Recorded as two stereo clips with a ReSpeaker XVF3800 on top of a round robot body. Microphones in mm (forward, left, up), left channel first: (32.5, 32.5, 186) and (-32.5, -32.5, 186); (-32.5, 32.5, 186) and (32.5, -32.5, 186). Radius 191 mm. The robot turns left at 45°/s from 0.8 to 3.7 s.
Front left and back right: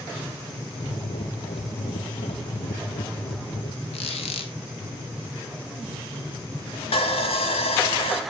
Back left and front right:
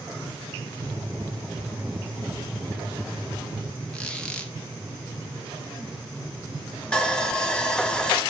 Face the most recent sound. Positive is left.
turn(degrees=55)